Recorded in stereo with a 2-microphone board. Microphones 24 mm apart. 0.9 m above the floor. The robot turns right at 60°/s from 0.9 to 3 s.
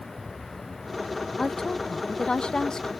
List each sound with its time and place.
1.4 s a woman speaking: 40° left, 0.5 m; by 2.9 s 130° left, 0.5 m